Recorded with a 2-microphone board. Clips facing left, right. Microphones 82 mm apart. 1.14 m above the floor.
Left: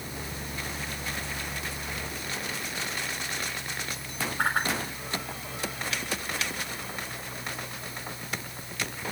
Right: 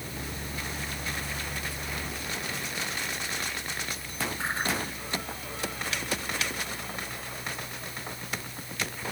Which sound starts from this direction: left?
A whoosh, at 4.4 s.